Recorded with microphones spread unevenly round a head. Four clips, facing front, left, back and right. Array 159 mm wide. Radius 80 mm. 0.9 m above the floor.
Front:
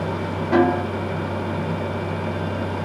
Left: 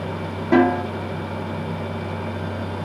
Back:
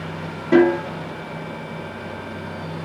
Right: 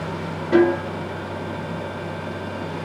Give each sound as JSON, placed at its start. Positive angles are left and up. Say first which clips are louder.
{"t": 0.5, "sound": "a snare drum", "louder": "even, back 3 dB", "azimuth_deg": 115, "distance_m": 1.9}